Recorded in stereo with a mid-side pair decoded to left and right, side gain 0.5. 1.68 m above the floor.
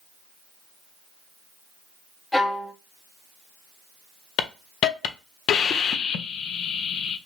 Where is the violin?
15° left, 0.7 m.